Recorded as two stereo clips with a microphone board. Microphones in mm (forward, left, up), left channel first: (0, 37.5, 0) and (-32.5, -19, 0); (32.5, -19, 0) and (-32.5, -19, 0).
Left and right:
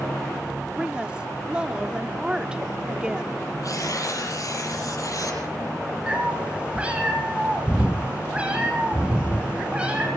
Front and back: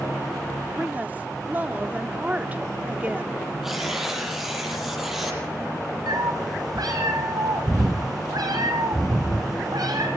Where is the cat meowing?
165° left, 4.5 m.